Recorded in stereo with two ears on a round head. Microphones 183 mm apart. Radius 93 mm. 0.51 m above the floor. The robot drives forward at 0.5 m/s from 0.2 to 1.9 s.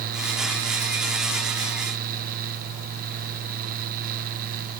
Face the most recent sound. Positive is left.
No sound to turn to.